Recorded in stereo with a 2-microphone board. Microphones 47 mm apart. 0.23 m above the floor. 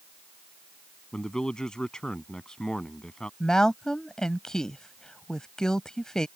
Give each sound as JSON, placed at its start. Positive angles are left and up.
{"t": 1.1, "sound": "a man speaking", "side_deg": 15}
{"t": 3.4, "sound": "a woman speaking", "side_deg": 15}